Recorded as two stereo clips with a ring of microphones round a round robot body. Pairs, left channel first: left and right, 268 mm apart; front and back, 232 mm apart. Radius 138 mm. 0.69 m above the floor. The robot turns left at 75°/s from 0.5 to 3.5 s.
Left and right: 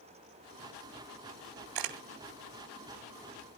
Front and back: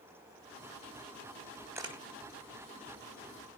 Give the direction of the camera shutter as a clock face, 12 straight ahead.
3 o'clock.